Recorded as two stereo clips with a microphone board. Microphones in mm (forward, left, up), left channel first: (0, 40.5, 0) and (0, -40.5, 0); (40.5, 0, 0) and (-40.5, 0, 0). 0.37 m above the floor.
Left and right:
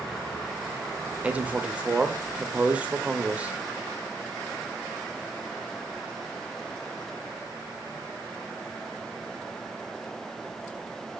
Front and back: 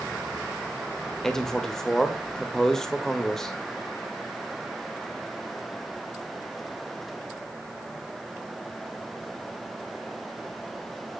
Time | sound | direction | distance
1.2 | a man speaking | 70° right | 0.9 m